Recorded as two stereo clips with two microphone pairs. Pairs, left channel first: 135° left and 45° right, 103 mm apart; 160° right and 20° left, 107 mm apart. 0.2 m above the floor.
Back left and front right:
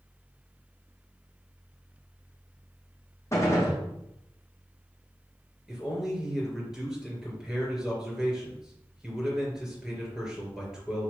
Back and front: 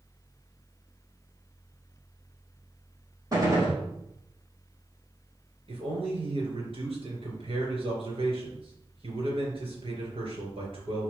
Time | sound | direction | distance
3.3 | a gunshot | 75° left | 4.5 m
5.7 | a man speaking | 40° left | 4 m